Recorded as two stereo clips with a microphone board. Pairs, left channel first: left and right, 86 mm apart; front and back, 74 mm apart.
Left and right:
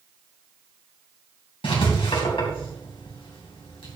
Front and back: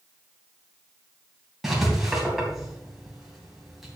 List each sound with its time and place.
1.6 s writing: 95° left, 3 m